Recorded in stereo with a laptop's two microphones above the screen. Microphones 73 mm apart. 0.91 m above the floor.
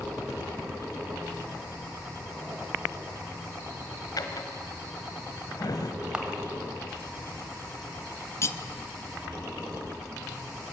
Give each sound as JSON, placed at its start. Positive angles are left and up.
{"t": 4.2, "sound": "a drawer", "side_deg": 60, "distance_m": 1.3}
{"t": 6.1, "sound": "a camera shutter", "side_deg": -10, "distance_m": 2.0}
{"t": 8.4, "sound": "cutlery clinking", "side_deg": 40, "distance_m": 0.6}